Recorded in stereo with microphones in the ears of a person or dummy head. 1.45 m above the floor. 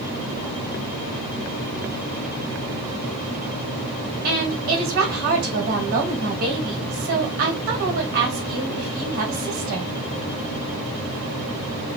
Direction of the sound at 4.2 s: 50° right (ahead or behind).